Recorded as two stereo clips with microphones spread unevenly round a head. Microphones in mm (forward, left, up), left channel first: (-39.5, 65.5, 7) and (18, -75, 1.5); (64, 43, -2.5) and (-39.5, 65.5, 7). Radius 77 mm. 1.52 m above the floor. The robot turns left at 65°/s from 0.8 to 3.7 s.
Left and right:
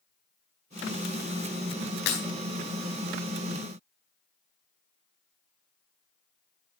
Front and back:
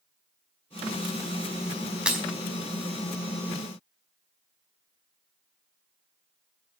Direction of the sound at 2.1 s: 90° left.